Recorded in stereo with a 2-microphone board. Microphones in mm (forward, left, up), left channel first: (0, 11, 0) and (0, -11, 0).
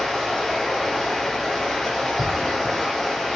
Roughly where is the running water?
Centre.